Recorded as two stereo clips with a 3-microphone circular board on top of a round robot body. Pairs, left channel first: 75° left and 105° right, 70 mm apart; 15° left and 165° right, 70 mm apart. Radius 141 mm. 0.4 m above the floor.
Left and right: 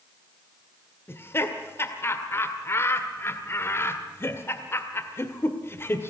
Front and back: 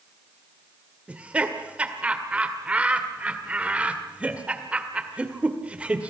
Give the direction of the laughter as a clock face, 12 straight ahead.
8 o'clock.